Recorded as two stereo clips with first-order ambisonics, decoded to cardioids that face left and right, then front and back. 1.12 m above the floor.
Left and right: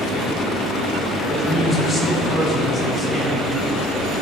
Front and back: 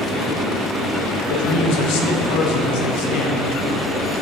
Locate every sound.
1.3 s a man speaking: 10° left, 0.6 m